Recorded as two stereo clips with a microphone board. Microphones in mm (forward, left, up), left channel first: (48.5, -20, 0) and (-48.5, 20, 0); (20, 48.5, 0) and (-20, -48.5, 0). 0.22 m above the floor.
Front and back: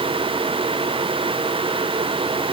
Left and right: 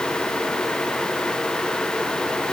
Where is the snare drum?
No snare drum in this recording.